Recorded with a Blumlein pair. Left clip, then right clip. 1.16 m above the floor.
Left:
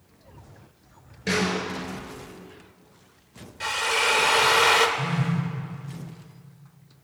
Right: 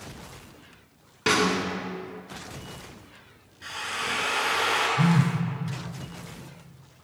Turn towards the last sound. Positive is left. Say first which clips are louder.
# right 3 dB
turn(degrees=-55)